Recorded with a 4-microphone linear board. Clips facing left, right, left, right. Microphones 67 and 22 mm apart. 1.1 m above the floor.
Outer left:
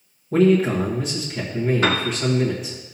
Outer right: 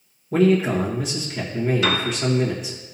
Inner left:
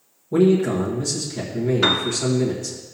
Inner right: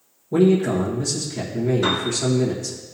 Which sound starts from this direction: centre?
A man speaking, at 0.3 s.